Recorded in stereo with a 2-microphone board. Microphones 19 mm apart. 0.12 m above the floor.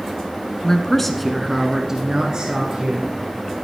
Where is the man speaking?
25° left (ahead or behind), 1.1 m; by 3.1 s 55° right (ahead or behind), 1.9 m.